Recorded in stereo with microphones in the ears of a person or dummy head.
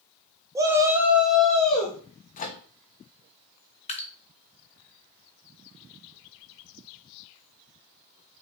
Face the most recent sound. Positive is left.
turn(degrees=30)  # may be behind; listen again after turning